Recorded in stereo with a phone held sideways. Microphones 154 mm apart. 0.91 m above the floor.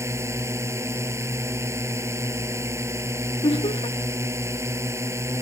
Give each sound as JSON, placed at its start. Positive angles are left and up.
{"t": 0.0, "sound": "a drone", "side_deg": -15}
{"t": 3.4, "sound": "laughter", "side_deg": 40}